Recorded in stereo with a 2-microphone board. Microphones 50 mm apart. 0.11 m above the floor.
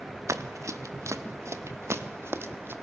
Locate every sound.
0.3 s running footsteps: 80° right, 1.9 m; by 2.7 s 50° right (ahead or behind), 2 m